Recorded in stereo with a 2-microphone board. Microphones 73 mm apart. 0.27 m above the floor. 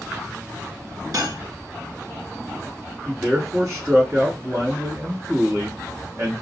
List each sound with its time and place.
1.1 s cutlery clinking: 55° right (ahead or behind), 1.7 m
3.0 s a man speaking: 45° right (ahead or behind), 1.6 m